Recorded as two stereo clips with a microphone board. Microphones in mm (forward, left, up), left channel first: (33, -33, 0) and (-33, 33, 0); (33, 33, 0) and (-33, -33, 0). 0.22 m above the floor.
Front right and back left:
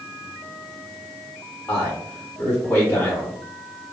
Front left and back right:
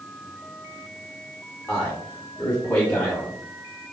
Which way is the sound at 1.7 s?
10° right.